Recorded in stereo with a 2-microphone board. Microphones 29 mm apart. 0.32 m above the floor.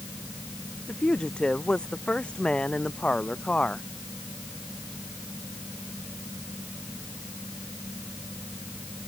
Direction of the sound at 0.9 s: 35° left (ahead or behind).